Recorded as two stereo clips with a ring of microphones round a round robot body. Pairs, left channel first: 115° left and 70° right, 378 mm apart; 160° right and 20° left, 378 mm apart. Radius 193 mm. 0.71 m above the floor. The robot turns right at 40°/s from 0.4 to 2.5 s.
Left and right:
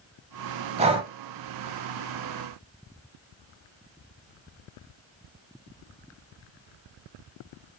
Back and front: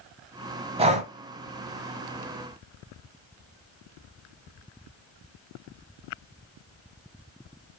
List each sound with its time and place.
0.8 s breathing: 25° right, 0.5 m; by 1.1 s 10° right, 0.5 m